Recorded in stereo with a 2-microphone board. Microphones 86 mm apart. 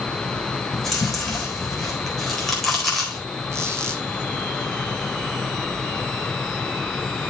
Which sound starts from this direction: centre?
Chewing, at 0.7 s.